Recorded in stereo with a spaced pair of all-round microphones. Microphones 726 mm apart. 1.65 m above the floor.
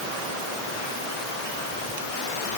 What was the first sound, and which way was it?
Only background noise.